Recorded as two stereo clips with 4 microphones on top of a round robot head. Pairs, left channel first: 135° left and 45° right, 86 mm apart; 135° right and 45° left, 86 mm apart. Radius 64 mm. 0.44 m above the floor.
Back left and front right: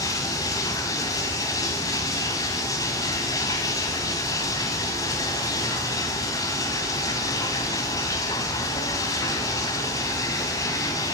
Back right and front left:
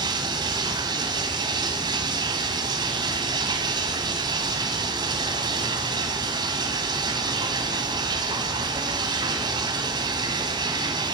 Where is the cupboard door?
I don't hear a cupboard door.